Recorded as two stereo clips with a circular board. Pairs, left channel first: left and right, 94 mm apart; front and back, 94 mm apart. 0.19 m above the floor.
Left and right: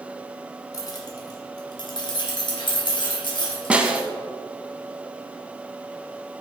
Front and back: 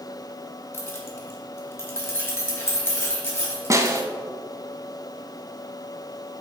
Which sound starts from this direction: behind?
A snare drum, at 3.7 s.